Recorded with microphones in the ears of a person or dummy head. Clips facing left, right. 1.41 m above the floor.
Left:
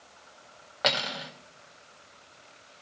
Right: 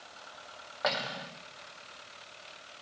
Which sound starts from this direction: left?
Cutlery clinking, at 0.8 s.